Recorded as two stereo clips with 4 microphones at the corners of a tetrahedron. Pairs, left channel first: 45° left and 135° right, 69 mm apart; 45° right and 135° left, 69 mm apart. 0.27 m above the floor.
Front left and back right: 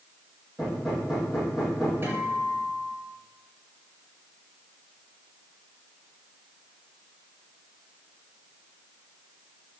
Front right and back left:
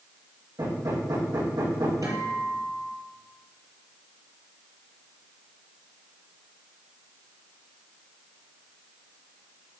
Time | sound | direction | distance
0.6 | hammering | 145° left | 6 m
2.0 | a guitar | 170° left | 4.5 m